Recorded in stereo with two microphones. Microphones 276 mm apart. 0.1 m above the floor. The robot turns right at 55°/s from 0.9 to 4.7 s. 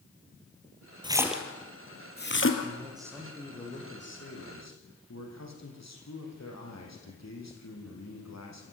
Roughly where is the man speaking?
Ahead right.